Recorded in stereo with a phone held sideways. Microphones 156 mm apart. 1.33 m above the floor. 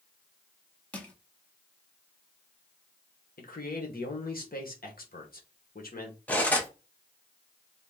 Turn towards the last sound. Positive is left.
turn(degrees=10)  # may be behind; listen again after turning